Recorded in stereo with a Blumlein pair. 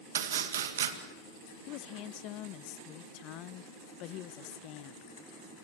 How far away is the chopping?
About 2 m.